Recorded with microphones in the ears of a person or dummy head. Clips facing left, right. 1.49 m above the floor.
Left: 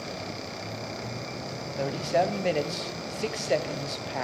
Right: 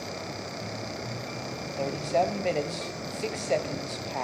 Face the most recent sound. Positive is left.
turn(degrees=10)  # may be behind; listen again after turning